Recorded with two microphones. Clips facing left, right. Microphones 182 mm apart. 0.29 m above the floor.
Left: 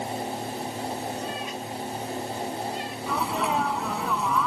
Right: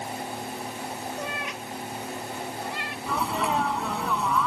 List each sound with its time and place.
1.2 s a cat meowing: 90° right; by 3.0 s 85° right
3.1 s a sneeze: centre (ahead or behind)